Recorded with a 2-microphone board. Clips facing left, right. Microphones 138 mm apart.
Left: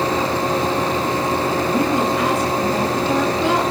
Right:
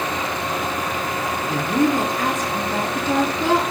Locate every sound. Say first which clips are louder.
1.5 s a woman speaking: right 3 dB; 45° right (ahead or behind), 3.5 m